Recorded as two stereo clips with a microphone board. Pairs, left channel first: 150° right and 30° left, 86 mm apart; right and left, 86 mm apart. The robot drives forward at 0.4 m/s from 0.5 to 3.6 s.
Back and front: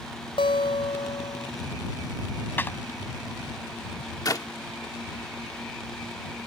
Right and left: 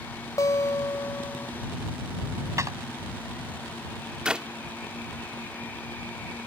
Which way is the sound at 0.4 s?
140° right.